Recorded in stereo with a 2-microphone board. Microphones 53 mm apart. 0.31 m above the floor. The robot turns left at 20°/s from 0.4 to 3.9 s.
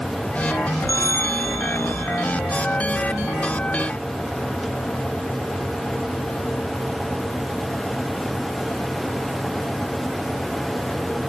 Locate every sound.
0.9 s a bell: 65° left (ahead or behind), 2.5 m; by 2.4 s 60° left (ahead or behind), 2.5 m